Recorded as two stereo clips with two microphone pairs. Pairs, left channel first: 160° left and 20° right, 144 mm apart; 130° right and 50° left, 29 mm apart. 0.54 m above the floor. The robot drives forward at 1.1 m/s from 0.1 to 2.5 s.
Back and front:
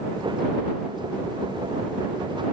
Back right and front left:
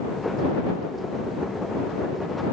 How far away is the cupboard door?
I don't hear a cupboard door.